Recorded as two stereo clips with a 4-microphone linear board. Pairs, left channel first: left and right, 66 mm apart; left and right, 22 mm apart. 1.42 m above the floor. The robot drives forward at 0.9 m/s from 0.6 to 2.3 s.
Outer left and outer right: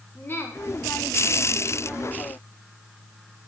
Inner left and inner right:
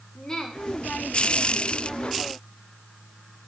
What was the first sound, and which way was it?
A woman speaking, 35° left (ahead or behind).